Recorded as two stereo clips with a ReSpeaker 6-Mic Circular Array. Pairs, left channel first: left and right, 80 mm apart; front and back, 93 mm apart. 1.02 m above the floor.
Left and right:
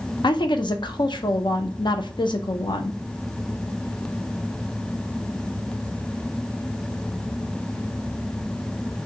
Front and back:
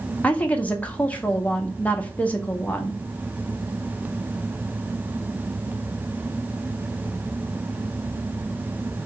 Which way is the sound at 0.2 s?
75° left.